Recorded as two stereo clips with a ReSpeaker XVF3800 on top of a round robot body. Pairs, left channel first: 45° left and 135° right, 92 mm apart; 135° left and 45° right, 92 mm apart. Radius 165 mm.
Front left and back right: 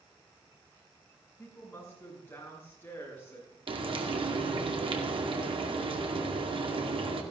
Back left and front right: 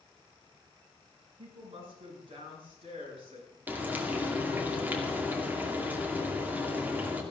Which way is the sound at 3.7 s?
115° right.